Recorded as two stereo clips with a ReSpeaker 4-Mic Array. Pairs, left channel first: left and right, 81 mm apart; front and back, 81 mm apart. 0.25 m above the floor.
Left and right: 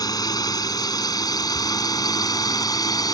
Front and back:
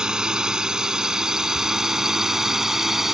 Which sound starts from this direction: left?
A drone, at 0.0 s.